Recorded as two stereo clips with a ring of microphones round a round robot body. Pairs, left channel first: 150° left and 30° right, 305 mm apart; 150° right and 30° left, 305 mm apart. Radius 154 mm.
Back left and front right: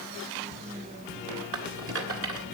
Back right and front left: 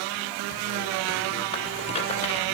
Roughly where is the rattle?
Right.